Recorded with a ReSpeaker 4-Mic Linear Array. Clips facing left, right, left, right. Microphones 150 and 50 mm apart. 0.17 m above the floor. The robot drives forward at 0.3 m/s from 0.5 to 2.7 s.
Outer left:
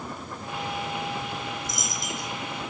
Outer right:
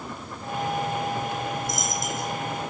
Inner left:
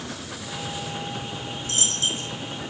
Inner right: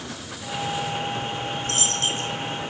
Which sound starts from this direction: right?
A dropped coin, at 1.6 s.